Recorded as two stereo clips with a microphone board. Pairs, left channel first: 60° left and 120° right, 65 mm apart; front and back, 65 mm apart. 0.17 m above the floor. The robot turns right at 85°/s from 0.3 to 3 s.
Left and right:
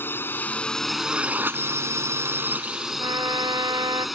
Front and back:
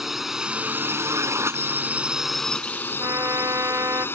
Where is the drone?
95° left; by 4.2 s 35° right.